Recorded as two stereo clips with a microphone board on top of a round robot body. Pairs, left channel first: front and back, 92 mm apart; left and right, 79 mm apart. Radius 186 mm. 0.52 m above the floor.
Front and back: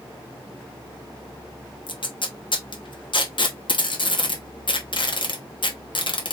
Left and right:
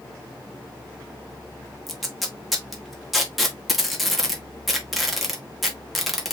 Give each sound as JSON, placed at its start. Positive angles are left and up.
{"t": 1.9, "sound": "tape being pulled", "azimuth_deg": 0, "distance_m": 1.9}